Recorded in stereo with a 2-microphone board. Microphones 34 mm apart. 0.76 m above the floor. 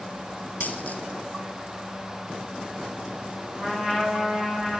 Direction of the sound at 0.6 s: 50° left (ahead or behind).